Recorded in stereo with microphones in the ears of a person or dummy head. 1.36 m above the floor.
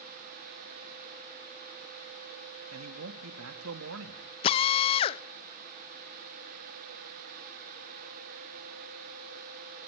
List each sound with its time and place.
2.7 s a man speaking: 85° right, 2 m
4.4 s a drill: 30° left (ahead or behind), 0.7 m